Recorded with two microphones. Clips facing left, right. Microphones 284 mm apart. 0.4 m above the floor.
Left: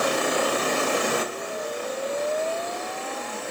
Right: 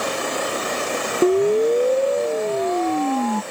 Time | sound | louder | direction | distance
1.2 | a siren | right 17 dB | 75° right (ahead or behind) | ?